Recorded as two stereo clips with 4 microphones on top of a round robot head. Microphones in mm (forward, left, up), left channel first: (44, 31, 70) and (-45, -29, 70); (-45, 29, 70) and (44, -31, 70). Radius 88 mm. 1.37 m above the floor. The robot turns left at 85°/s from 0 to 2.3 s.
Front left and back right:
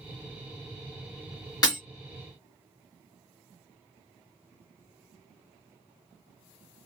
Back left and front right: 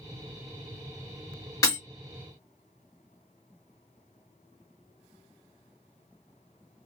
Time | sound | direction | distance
1.6 | breaking glass | 90° left | 1.2 m